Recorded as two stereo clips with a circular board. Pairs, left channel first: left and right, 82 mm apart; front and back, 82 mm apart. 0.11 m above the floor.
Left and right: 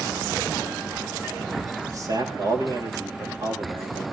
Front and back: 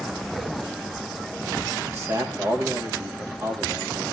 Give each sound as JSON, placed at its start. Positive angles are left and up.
{"t": 1.8, "sound": "a man speaking", "azimuth_deg": -130, "distance_m": 7.5}